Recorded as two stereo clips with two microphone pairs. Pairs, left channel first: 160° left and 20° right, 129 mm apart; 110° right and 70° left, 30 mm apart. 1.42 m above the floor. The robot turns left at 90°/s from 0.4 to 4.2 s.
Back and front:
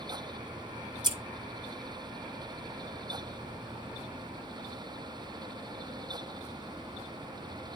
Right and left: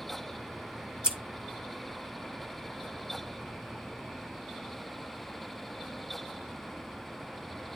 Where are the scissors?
25° left, 1.2 m; by 1.2 s 10° left, 1.2 m.